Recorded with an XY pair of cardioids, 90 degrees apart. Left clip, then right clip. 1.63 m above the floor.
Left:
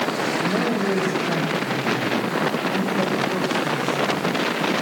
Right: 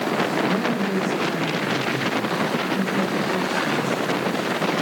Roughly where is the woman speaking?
Ahead left.